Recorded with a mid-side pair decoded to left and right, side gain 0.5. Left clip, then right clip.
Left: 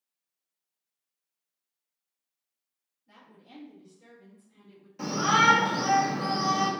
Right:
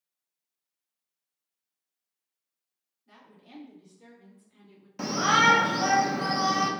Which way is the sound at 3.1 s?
65° right.